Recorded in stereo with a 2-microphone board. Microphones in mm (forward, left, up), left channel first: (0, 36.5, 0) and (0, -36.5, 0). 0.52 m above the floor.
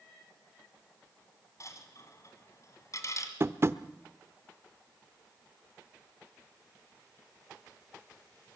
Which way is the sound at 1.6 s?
45° left (ahead or behind).